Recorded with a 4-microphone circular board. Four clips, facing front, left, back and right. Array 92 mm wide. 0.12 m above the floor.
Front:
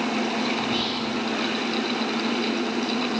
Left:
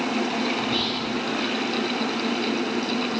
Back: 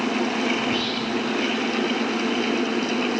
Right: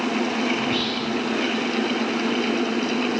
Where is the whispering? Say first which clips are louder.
Right 2 dB, back 2 dB; 120° right, 2 m.